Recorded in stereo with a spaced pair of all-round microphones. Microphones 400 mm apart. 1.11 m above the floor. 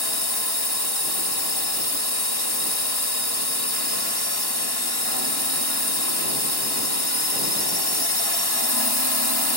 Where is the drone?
70° left (ahead or behind).